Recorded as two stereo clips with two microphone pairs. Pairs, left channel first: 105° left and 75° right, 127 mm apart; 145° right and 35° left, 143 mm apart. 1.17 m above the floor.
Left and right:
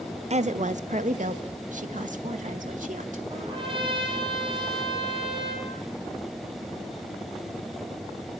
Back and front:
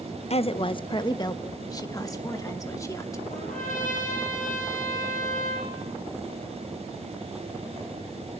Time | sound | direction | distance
0.3 | a woman speaking | 105° right | 0.7 m
3.3 | a trumpet | 125° right | 6 m